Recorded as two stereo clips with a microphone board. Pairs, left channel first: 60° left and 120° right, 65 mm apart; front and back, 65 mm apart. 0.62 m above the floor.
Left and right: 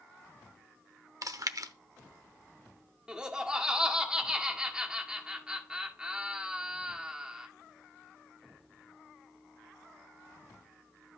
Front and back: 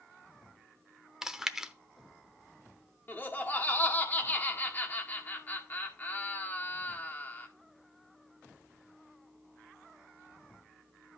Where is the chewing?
100° right, 0.7 m.